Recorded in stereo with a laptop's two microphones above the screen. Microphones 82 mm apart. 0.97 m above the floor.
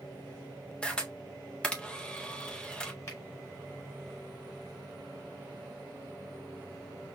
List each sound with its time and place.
0.8 s a camera shutter: 15° left (ahead or behind), 0.6 m
3.1 s a finger snap: 40° left (ahead or behind), 2.5 m